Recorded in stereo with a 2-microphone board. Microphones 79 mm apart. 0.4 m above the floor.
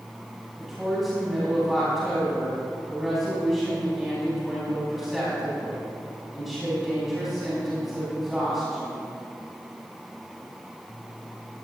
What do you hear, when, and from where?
0.6 s a woman speaking: centre (ahead or behind), 3.5 m